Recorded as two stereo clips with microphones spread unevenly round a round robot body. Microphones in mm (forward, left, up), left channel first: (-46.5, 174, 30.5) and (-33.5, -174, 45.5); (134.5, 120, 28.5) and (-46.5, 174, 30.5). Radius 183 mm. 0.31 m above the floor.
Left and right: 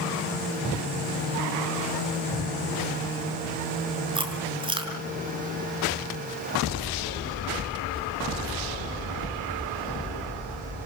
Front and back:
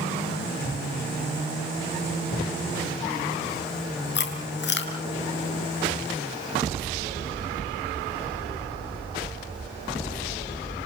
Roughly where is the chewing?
Ahead.